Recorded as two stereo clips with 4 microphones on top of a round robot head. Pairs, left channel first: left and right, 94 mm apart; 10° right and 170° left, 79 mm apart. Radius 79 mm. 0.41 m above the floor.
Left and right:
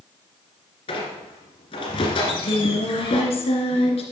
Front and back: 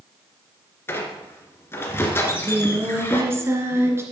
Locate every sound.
0.9 s a squeak: 50° left, 2 m
2.2 s singing: 110° left, 2 m